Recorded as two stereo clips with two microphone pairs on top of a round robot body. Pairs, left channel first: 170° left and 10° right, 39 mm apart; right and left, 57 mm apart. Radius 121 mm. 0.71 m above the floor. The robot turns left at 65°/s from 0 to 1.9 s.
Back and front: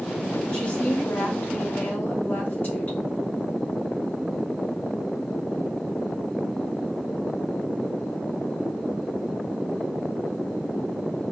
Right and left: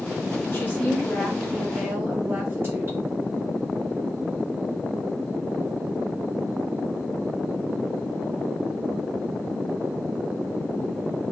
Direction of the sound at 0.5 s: 130° right.